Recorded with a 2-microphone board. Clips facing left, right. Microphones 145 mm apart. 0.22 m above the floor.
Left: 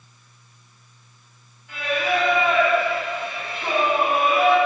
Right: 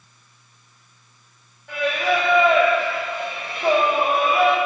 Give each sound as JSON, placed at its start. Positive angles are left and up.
{"t": 1.7, "sound": "singing", "side_deg": -60, "distance_m": 3.5}